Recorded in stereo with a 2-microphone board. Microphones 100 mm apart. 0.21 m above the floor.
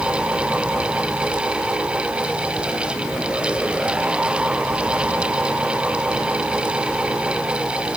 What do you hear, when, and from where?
Only background noise.